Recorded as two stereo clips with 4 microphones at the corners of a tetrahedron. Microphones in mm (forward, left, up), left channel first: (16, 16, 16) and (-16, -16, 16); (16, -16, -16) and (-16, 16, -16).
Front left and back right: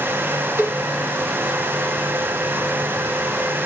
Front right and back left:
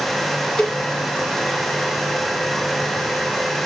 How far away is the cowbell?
About 1.6 m.